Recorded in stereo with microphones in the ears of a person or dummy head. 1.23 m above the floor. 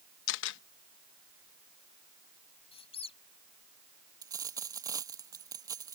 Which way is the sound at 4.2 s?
20° right (ahead or behind).